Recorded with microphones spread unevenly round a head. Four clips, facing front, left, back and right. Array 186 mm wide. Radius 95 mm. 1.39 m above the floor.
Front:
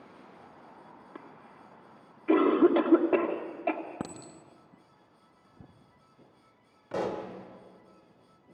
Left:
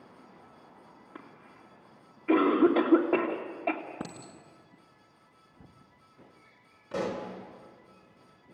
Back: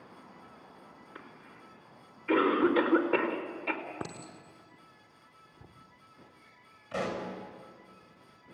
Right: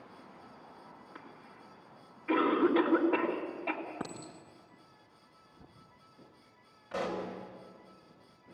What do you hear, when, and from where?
1.1 s a cough: 40° left, 3 m
4.0 s a clink: 20° left, 1.5 m
6.9 s a pop: 30° left, 3.5 m